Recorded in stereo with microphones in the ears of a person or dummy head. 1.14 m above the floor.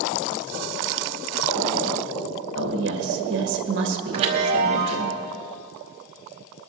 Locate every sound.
2.5 s a woman speaking: 60° right (ahead or behind), 1.7 m
4.1 s a chime: 30° right (ahead or behind), 1.0 m